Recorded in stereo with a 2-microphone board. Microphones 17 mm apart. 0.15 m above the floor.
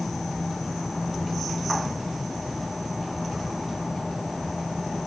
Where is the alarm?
No alarm in this recording.